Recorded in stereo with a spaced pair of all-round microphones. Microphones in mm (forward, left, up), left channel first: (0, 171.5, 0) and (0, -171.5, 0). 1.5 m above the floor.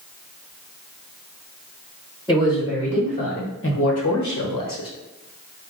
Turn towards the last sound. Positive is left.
turn(degrees=75)  # may be behind; listen again after turning